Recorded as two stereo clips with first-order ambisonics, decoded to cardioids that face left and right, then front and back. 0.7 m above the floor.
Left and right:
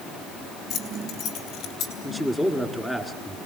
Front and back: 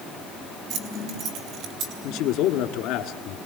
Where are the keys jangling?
150° left, 4 m; by 1.9 s 145° left, 4.5 m.